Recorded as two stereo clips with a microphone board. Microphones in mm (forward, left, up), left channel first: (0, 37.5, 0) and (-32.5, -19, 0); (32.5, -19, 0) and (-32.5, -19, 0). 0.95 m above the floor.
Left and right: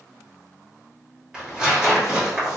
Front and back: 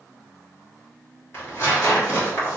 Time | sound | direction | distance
1.3 | tearing paper | 45° right | 1.5 m